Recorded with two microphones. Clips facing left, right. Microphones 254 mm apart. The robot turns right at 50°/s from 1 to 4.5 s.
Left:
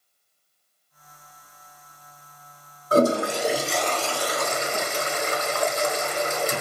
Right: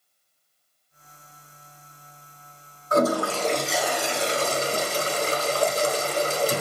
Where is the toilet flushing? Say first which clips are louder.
Left 2 dB; 140° left, 0.9 m; by 6.6 s 140° right, 0.9 m.